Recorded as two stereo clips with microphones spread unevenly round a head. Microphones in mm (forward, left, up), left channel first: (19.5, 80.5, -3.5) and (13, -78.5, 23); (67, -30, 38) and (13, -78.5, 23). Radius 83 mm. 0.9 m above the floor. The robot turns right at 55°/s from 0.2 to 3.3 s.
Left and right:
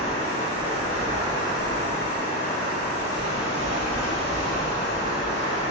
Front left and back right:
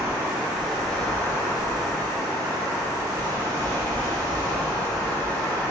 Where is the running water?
80° right, 1.8 m; by 5.7 s 90° left, 1.8 m.